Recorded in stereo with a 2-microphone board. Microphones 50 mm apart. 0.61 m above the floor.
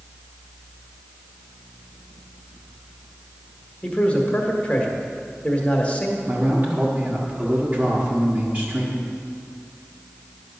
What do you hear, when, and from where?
3.8 s a man speaking: 25° left (ahead or behind), 1.4 m
6.3 s a man speaking: 25° right (ahead or behind), 1.4 m